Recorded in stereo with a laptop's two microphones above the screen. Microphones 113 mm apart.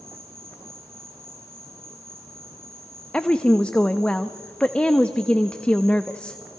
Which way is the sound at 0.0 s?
20° right (ahead or behind).